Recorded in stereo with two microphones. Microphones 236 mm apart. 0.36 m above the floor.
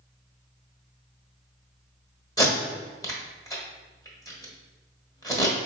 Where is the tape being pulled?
15° left (ahead or behind), 1.2 m.